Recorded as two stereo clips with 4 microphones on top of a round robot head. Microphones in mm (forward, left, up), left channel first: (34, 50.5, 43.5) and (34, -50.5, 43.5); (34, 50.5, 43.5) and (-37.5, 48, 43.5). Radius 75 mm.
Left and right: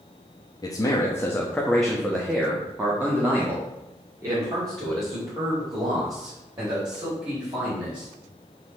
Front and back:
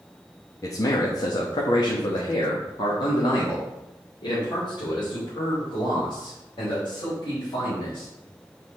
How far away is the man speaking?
About 1.2 m.